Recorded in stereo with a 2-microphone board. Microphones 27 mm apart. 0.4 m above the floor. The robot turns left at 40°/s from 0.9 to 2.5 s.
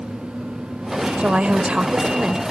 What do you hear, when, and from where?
1.2 s a woman speaking: 85° right, 1.2 m; by 2.4 s 135° right, 1.2 m